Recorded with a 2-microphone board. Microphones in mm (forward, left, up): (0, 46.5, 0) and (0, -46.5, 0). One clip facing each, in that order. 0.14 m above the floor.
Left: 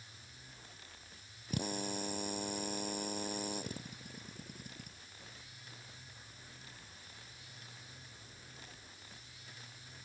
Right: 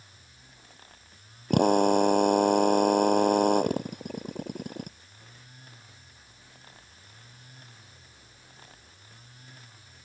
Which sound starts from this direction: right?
A drill, at 1.5 s.